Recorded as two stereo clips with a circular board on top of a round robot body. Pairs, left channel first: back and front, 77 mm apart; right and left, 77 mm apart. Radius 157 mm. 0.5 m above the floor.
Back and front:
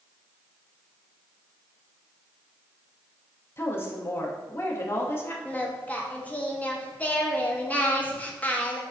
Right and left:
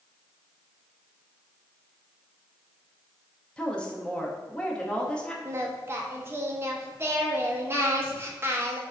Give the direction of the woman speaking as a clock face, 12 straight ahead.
5 o'clock.